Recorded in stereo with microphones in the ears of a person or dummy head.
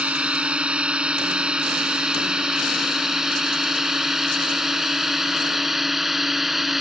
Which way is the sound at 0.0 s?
10° right (ahead or behind).